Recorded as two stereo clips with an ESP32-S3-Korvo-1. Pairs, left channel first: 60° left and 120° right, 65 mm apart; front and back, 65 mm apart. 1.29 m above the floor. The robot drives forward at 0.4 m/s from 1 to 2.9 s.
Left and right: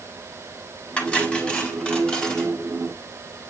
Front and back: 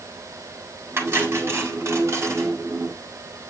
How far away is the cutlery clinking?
About 3.5 m.